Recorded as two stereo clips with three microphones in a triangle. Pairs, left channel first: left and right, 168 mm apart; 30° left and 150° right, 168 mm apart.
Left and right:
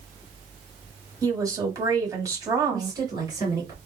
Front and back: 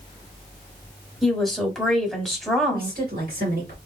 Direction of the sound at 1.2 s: 55° right.